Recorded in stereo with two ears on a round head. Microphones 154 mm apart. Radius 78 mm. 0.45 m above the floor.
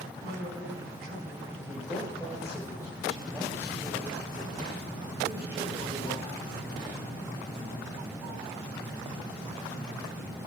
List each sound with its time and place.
0.2 s a woman speaking: 60° right (ahead or behind), 4 m
1.7 s a man speaking: 15° right (ahead or behind), 3 m